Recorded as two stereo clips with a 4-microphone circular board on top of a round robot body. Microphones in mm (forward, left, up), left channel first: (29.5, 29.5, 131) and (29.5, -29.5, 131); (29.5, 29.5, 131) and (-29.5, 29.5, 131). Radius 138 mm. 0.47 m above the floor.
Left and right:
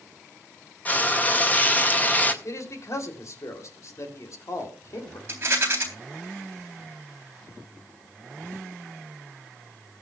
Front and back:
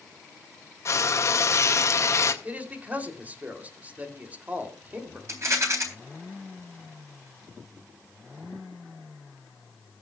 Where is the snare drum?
I don't hear a snare drum.